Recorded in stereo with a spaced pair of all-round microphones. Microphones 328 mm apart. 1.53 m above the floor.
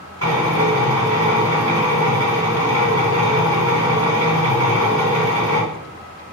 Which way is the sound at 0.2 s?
45° left (ahead or behind).